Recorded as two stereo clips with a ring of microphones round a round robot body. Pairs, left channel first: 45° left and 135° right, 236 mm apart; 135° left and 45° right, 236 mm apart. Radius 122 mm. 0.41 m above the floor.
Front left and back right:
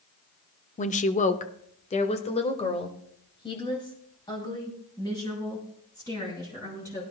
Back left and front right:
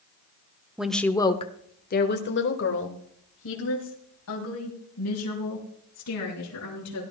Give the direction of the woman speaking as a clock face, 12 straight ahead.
11 o'clock.